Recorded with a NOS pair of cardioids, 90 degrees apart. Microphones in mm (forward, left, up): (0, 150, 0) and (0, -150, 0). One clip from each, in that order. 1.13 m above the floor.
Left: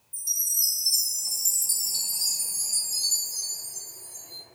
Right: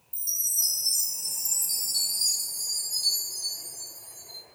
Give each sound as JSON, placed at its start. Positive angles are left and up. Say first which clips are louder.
{"t": 0.1, "sound": "a chime", "louder": "left 1 dB", "azimuth_deg": 10, "distance_m": 0.9}